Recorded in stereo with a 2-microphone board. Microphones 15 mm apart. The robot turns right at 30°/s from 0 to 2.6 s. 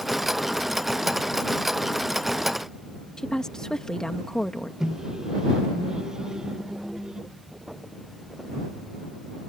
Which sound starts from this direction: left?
A woman speaking, at 3.2 s.